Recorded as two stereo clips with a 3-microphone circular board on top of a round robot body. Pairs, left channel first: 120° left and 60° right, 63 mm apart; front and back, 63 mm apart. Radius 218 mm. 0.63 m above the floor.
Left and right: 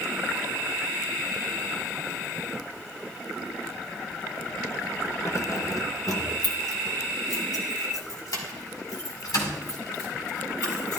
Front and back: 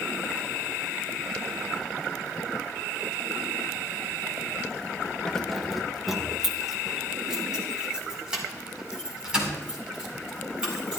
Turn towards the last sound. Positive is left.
turn(degrees=105)